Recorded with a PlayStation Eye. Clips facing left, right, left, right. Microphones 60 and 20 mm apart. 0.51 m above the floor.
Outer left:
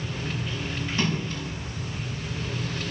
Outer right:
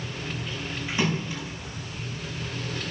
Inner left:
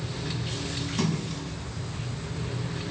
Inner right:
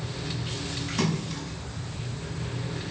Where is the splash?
15° right (ahead or behind), 4.5 m.